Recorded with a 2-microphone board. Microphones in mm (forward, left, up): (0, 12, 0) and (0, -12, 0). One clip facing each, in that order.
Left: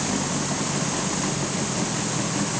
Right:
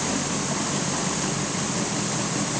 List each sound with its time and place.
Only background noise.